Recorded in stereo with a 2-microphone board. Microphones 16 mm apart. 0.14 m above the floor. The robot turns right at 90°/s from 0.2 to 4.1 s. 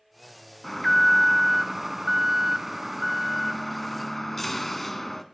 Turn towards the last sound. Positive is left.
turn(degrees=20)  # may be behind; listen again after turning